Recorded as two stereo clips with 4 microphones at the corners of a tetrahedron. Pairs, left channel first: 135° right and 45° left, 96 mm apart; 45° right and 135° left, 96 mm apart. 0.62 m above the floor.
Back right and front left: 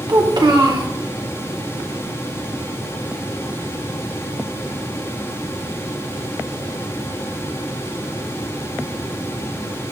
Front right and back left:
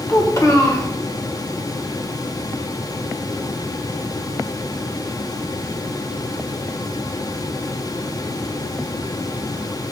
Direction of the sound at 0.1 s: 5° left.